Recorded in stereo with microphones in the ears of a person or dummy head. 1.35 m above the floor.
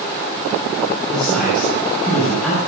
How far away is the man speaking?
About 8 m.